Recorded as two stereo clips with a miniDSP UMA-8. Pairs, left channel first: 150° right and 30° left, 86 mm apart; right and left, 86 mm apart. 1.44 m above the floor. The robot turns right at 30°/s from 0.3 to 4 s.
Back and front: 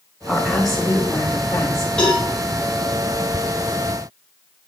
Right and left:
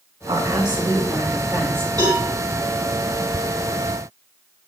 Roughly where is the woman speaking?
Behind left.